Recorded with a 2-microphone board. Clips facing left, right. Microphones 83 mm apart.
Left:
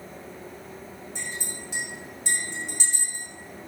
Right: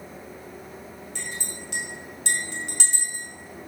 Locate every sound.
1.1 s a clink: 80° right, 3 m